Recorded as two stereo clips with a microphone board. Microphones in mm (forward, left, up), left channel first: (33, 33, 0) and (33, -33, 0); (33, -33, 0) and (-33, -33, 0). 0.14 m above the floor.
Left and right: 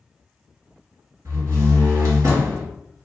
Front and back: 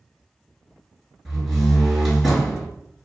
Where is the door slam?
85° right, 1.4 m.